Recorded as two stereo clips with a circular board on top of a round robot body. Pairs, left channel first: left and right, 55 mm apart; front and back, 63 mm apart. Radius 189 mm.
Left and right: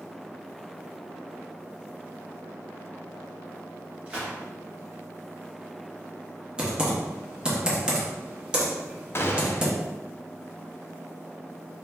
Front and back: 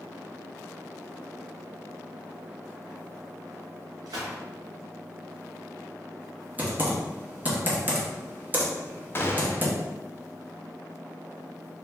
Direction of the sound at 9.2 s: 50° left.